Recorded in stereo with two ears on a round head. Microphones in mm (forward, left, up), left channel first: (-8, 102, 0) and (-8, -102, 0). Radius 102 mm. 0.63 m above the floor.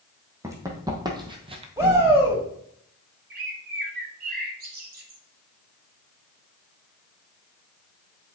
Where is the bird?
40° right (ahead or behind), 1.2 m.